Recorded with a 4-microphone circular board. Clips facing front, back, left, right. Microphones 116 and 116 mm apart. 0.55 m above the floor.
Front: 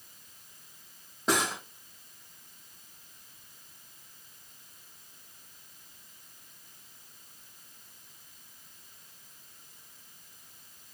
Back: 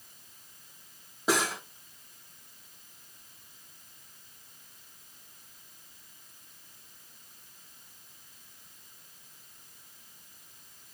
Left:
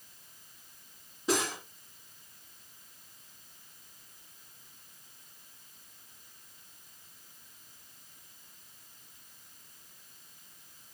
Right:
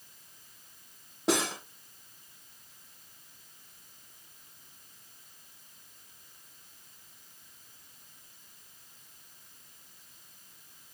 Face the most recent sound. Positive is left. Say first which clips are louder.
# back 1 dB, right 2 dB
turn(degrees=-95)